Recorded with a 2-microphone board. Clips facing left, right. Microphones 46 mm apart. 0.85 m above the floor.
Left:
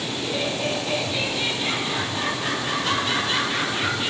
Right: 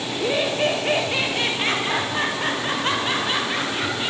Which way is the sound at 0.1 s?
65° right (ahead or behind).